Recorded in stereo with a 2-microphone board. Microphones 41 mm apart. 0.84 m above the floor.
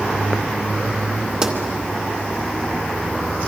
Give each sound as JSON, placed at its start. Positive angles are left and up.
{"t": 1.4, "sound": "a pop", "side_deg": -15, "distance_m": 2.0}